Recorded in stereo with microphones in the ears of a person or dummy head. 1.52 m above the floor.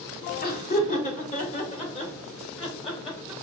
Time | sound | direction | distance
0.4 | laughter | 50° left (ahead or behind) | 1.4 m